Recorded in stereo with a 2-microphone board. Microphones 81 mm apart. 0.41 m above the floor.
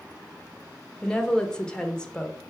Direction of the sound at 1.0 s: 10° left (ahead or behind).